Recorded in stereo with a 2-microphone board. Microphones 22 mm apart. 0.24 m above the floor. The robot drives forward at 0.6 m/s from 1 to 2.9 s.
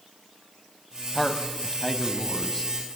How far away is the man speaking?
About 1.0 m.